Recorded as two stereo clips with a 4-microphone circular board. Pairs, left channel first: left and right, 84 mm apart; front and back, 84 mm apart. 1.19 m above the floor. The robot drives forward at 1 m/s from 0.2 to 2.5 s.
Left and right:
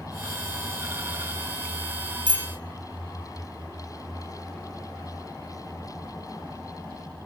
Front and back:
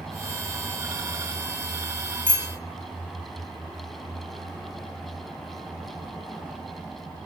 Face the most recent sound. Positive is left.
turn(degrees=-120)